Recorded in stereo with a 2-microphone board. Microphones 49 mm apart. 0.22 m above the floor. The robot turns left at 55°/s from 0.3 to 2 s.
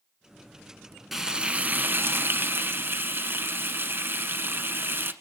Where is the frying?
5° right, 1.2 m; by 5.1 s 55° right, 1.2 m.